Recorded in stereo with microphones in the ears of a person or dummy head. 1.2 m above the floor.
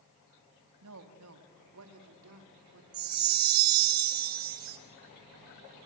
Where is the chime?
50° right (ahead or behind), 1.4 m.